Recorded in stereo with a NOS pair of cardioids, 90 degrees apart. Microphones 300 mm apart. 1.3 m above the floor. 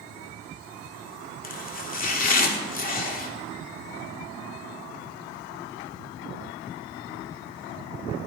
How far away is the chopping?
About 2 m.